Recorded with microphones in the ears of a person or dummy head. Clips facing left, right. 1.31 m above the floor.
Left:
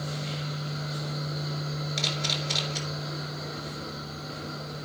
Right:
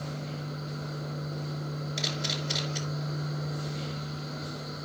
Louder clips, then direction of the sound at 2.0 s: Left 1 dB; 5° right (ahead or behind).